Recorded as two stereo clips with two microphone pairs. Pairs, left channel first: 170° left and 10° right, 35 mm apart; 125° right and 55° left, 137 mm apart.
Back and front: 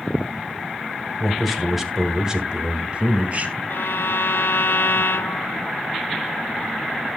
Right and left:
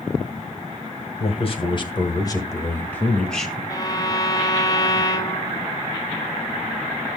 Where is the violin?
175° left, 0.6 m.